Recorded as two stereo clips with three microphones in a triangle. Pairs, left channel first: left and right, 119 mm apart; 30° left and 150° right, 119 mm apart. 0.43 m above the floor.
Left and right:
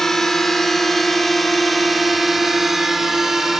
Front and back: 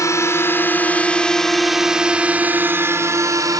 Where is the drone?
5° left; by 3.6 s 175° right.